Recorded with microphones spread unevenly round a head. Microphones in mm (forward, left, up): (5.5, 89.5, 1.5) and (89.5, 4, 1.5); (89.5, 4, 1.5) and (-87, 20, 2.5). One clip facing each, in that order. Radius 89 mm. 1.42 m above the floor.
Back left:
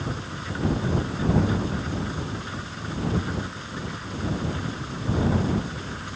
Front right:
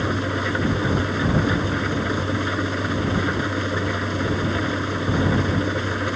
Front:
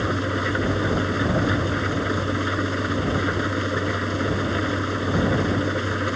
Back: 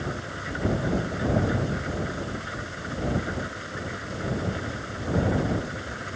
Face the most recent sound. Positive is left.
turn(degrees=-30)